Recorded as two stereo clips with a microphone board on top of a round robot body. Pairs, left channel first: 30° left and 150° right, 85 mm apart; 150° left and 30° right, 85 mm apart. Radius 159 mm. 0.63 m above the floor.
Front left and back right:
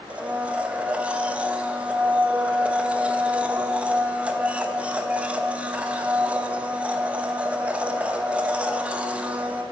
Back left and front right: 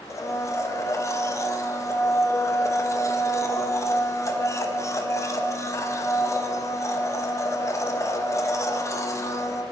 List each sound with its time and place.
0.1 s a blender: 145° left, 1.0 m